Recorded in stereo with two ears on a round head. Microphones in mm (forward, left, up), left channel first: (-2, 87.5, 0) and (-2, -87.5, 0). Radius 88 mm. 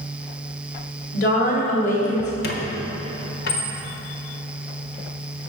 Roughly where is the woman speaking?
Left.